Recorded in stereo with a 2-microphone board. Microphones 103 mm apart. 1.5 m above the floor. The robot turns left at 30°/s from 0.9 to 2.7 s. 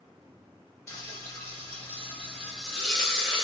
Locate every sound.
0.9 s frying: 60° left, 0.9 m; by 3.5 s 5° left, 0.9 m